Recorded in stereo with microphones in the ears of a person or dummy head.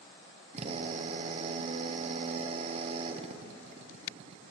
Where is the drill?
35° right (ahead or behind), 0.9 m.